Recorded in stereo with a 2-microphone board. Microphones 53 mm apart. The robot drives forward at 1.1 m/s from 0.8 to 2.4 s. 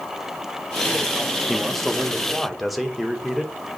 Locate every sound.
1.5 s a man speaking: 5° right (ahead or behind), 0.8 m; by 3.5 s centre (ahead or behind), 1.8 m